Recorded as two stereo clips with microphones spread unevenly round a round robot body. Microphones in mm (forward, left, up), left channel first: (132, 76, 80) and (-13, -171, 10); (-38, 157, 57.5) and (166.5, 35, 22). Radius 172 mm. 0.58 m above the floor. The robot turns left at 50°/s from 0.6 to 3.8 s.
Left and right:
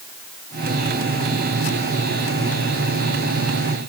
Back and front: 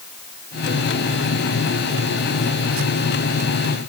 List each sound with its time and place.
Only background noise.